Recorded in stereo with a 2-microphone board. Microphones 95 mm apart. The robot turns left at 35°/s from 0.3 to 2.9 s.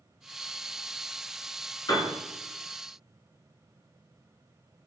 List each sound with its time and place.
1.9 s a piano: 45° left (ahead or behind), 1.1 m